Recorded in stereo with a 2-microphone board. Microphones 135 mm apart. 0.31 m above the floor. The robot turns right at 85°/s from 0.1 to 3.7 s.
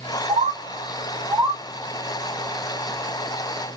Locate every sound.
0.3 s a bird: 50° right (ahead or behind), 1.7 m; by 1.6 s 15° right (ahead or behind), 1.7 m